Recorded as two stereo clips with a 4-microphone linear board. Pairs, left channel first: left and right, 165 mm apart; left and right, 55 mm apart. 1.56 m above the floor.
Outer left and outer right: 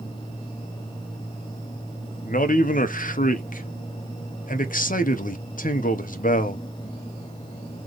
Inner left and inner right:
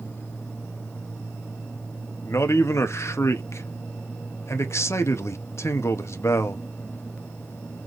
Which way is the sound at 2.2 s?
55° left (ahead or behind).